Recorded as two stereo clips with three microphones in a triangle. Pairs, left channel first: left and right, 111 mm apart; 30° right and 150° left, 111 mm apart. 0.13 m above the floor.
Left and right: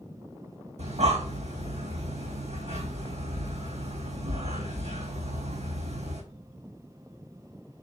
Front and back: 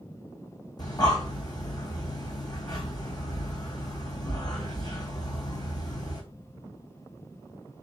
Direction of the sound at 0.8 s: 85° right.